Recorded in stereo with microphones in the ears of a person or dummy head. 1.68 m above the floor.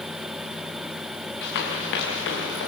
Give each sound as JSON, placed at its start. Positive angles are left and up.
{"t": 1.4, "sound": "running footsteps", "side_deg": 60, "distance_m": 5.5}